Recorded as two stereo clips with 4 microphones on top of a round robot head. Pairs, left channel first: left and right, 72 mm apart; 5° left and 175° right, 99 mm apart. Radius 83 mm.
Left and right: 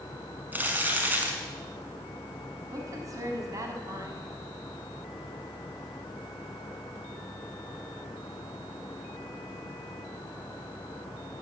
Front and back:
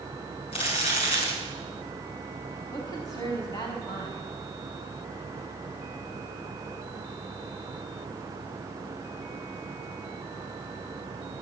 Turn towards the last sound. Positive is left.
turn(degrees=-55)